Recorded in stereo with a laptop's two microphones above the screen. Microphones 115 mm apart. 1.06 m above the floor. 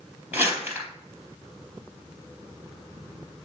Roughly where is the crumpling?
Centre.